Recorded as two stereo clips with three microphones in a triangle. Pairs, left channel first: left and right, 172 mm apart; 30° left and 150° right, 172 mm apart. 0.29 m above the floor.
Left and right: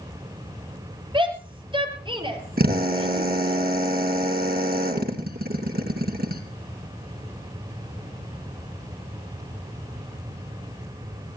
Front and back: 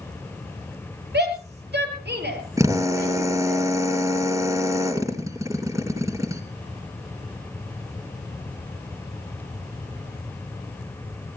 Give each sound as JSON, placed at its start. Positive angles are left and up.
{"t": 1.1, "sound": "a shout", "azimuth_deg": -150, "distance_m": 7.5}
{"t": 2.6, "sound": "a drill", "azimuth_deg": -80, "distance_m": 2.5}